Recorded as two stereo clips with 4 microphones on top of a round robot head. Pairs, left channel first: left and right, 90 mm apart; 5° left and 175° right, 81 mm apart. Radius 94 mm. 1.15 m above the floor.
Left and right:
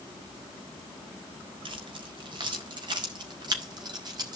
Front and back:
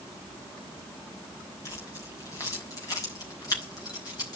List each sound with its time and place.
1.6 s keys jangling: 55° right, 4 m; by 4.4 s 45° right, 5.5 m